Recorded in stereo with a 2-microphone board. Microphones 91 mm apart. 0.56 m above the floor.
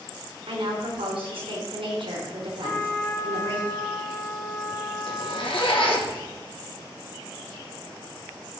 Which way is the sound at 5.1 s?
85° left.